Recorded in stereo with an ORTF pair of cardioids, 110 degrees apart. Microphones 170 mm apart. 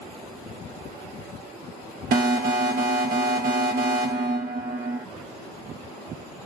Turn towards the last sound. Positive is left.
turn(degrees=-65)